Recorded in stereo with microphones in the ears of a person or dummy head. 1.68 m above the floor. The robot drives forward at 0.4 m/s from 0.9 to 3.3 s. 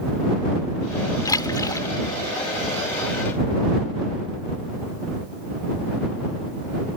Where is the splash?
20° left (ahead or behind).